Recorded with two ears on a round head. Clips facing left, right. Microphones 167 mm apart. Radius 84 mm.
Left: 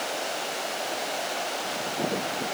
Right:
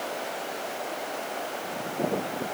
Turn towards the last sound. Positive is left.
No sound to turn to.